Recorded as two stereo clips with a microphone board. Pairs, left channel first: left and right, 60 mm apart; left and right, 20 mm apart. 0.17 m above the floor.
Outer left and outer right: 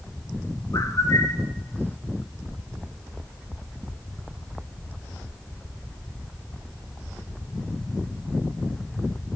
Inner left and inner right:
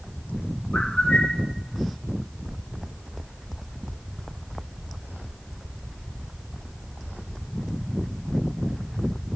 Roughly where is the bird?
Left.